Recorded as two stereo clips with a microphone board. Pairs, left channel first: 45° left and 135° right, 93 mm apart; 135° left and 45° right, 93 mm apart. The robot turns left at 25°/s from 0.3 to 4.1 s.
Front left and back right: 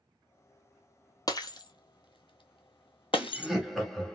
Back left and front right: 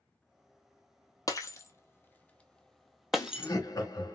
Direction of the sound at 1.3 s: 90° left.